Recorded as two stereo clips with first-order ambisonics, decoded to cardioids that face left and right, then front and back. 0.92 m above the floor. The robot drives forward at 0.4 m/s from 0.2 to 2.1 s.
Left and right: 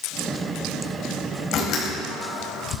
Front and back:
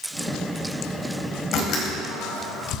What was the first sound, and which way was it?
A door slam, 45° left.